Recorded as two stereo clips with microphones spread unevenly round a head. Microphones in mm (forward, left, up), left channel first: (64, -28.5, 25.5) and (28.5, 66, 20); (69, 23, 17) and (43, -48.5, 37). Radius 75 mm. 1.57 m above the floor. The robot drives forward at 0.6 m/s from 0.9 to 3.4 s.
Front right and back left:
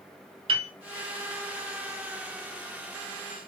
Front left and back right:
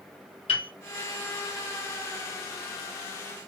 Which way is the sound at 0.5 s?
85° left.